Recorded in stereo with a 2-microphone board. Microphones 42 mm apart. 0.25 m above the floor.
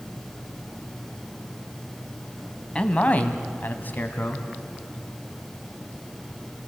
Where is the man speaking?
25° left (ahead or behind), 1.6 m; by 4.5 s 40° left (ahead or behind), 2 m.